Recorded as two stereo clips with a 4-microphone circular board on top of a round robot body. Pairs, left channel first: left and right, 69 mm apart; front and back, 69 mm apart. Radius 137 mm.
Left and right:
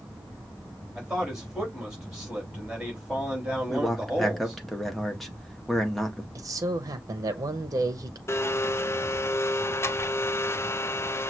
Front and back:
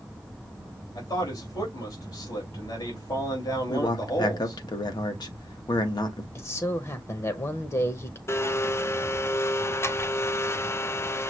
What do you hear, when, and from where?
0.9 s a man speaking: 10° right, 3 m
3.7 s a man speaking: straight ahead, 1.5 m
6.3 s a man speaking: 50° right, 0.9 m
8.3 s a blender: 45° left, 0.7 m